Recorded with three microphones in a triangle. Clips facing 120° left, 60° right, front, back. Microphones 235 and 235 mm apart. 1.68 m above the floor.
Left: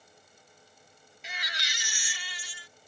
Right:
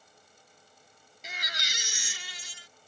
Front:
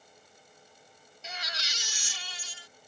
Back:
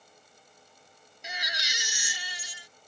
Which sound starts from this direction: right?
A baby crying, at 1.2 s.